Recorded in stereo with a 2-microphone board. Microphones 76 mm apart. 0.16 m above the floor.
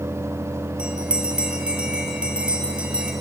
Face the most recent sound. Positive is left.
turn(degrees=-15)  # may be behind; listen again after turning